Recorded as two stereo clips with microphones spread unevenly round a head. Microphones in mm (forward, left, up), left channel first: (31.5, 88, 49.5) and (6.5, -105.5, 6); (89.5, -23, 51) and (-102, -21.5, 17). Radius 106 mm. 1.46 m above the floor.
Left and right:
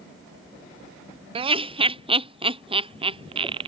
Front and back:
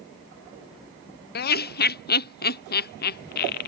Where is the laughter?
40° right.